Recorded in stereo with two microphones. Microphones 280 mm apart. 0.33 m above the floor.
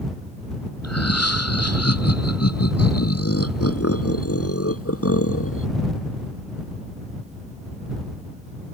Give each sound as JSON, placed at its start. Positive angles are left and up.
{"t": 0.8, "sound": "laughter", "side_deg": 65}